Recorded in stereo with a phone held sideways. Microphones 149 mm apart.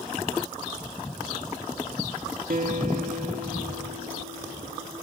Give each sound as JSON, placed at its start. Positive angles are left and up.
{"t": 2.5, "sound": "a guitar", "side_deg": -75, "distance_m": 3.0}